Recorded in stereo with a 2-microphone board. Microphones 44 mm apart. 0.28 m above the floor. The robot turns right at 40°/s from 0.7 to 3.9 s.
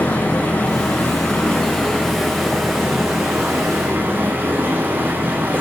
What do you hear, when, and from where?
0.0 s running water: 115° left, 4.5 m; by 5.6 s 120° right, 4.5 m